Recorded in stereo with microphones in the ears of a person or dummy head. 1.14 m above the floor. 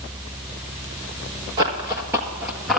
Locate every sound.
1.6 s running footsteps: 20° right (ahead or behind), 1.2 m; by 2.8 s centre (ahead or behind), 1.4 m